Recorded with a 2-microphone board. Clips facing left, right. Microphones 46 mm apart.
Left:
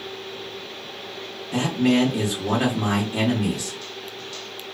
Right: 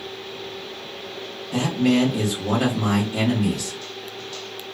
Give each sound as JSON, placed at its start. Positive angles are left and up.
{"t": 1.5, "sound": "a man speaking", "side_deg": 15, "distance_m": 1.0}